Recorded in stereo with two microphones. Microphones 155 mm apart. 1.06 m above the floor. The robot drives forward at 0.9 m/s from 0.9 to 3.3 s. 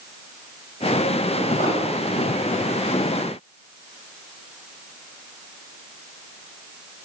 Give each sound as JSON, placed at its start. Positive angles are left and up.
{"t": 1.6, "sound": "an explosion", "side_deg": 75, "distance_m": 3.5}